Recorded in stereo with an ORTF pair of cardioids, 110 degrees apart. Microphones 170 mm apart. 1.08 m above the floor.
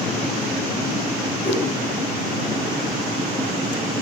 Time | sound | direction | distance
1.4 | a whoosh | 35° left | 0.9 m